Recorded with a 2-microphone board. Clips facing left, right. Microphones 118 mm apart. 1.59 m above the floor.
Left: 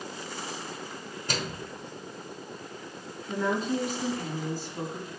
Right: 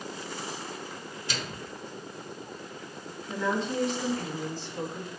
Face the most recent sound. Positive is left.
turn(degrees=5)  # may be behind; listen again after turning